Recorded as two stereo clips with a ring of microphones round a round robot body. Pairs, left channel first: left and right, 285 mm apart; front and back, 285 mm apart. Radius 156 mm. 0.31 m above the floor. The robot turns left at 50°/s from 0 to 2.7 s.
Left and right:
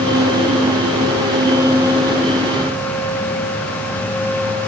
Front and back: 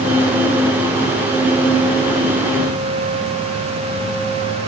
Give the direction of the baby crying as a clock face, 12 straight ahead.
No baby crying in this recording.